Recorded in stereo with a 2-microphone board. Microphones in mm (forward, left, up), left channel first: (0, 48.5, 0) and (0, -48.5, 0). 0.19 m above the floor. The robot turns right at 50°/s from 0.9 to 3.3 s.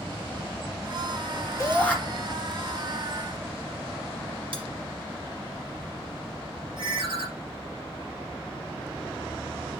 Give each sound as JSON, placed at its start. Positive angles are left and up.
{"t": 1.6, "sound": "a shout", "side_deg": 25, "distance_m": 3.0}
{"t": 4.5, "sound": "cutlery clinking", "side_deg": -60, "distance_m": 1.7}
{"t": 6.8, "sound": "a ringtone", "side_deg": -55, "distance_m": 3.5}